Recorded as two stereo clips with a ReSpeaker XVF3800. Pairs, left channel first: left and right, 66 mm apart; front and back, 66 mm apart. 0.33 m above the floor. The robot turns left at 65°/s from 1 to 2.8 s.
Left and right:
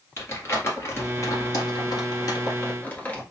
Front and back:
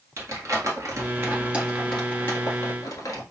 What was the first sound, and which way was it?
Crumpling, 140° left.